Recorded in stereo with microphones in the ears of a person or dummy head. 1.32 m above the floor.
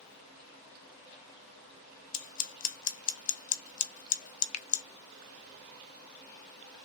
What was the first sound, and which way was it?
Scissors, 40° left (ahead or behind).